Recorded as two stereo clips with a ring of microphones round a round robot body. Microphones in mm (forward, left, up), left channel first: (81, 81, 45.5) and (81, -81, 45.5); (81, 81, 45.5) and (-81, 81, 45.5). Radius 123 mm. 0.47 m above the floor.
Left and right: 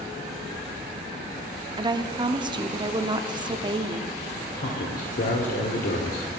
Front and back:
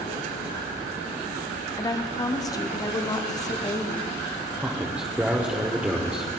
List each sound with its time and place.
1.8 s a woman speaking: 50° right, 0.8 m
4.6 s a man speaking: 100° left, 1.3 m